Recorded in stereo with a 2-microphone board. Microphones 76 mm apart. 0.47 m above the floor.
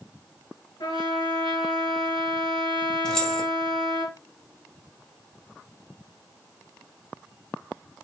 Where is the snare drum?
I don't hear a snare drum.